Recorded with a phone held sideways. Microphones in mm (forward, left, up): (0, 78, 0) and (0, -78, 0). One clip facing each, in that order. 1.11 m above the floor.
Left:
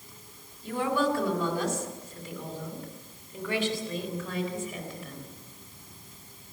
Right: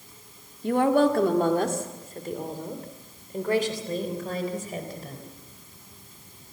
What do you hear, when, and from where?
0.6 s a woman speaking: 55° right (ahead or behind), 2.0 m; by 5.3 s 35° right (ahead or behind), 4.5 m